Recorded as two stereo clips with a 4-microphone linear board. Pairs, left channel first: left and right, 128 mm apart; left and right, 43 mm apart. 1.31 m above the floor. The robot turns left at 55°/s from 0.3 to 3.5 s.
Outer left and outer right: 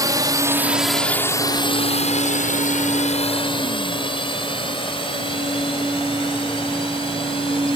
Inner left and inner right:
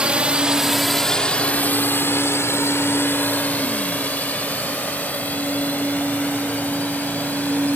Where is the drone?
25° right (ahead or behind); by 7.8 s 45° left (ahead or behind).